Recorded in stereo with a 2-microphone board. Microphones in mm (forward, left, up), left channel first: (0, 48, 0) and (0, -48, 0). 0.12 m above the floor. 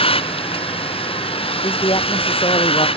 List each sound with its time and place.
0.0 s a vehicle: 90° left
1.6 s a man speaking: 70° left (ahead or behind)